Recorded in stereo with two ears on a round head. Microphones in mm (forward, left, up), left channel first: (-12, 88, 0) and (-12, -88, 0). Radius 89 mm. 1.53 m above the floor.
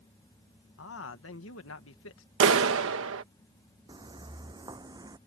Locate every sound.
0.8 s a man speaking: 70° left (ahead or behind)
2.4 s a clap: 75° right (ahead or behind)
3.9 s footsteps: 25° right (ahead or behind); by 5.2 s 20° right (ahead or behind)